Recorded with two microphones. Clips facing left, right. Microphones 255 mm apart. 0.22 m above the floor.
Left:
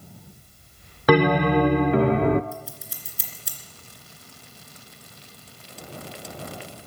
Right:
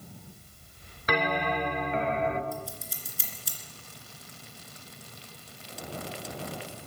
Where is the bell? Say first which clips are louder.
Left 12 dB; 65° left (ahead or behind), 0.6 m.